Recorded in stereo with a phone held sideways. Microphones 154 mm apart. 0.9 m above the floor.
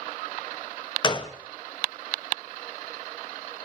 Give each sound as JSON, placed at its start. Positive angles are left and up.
{"t": 1.0, "sound": "a gunshot", "side_deg": 30, "distance_m": 0.7}